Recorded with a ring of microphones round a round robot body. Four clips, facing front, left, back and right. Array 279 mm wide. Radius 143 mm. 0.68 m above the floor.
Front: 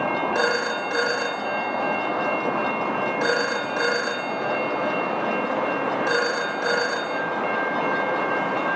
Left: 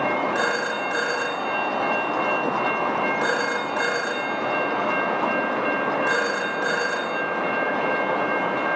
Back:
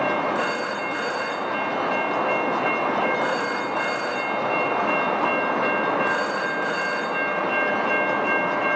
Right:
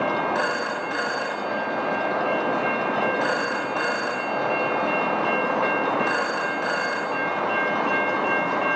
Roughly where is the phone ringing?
Ahead.